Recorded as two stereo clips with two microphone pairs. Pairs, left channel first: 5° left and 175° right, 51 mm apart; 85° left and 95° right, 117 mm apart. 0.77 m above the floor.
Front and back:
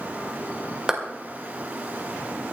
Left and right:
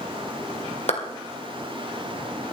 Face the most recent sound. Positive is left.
turn(degrees=110)